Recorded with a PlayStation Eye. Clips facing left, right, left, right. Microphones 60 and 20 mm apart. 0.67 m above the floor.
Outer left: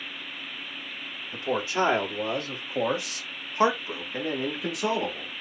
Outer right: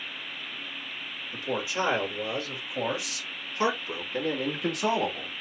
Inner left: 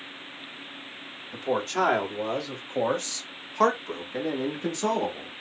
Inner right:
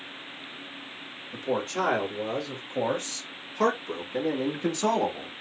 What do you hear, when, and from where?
1.3 s a man speaking: 45° left (ahead or behind), 1.9 m; by 5.3 s centre (ahead or behind), 1.3 m